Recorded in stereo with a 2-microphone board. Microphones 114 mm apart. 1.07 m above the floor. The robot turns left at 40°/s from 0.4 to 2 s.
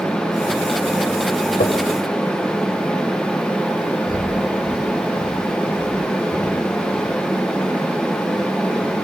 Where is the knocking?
85° left, 3 m; by 1.8 s 75° left (ahead or behind), 3 m.